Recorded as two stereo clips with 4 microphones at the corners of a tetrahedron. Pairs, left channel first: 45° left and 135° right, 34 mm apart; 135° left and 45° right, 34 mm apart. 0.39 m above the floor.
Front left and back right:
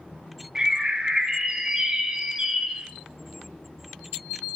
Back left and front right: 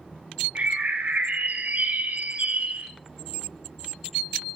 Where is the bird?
70° right, 1.1 m.